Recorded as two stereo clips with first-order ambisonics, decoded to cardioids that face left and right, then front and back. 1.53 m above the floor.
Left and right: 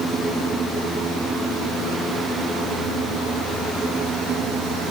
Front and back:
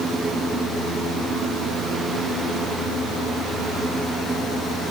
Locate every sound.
Only background noise.